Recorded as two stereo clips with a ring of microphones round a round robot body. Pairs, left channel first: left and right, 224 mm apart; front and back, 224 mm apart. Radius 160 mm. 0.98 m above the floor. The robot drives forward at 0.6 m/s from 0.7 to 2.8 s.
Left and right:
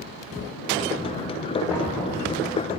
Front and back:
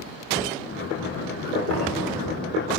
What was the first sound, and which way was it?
Knocking, straight behind.